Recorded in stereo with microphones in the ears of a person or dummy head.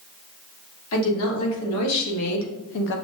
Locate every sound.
0.9 s a woman speaking: 70° left (ahead or behind), 1.6 m; by 3.0 s 55° left (ahead or behind), 0.8 m